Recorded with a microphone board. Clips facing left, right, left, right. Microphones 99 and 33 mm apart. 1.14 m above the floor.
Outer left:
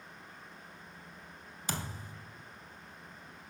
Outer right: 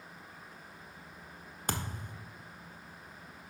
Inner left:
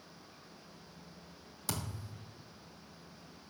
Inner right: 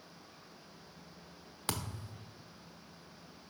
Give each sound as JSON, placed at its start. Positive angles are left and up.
{"t": 1.7, "sound": "a thud", "side_deg": -50, "distance_m": 1.0}